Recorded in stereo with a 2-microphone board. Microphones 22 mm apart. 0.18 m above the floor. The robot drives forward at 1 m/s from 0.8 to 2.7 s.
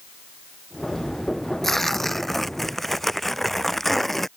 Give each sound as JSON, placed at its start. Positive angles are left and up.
{"t": 1.6, "sound": "tearing paper", "side_deg": 15}